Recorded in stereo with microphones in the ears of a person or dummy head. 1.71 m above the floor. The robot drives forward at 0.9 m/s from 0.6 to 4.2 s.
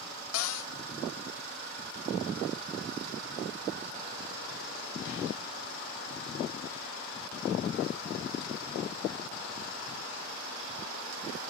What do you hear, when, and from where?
0.3 s a cupboard door: 75° left (ahead or behind), 0.9 m; by 0.7 s 80° left, 0.9 m